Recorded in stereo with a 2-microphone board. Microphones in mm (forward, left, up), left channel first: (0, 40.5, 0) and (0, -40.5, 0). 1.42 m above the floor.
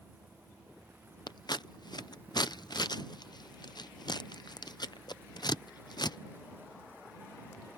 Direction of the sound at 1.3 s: 65° left (ahead or behind).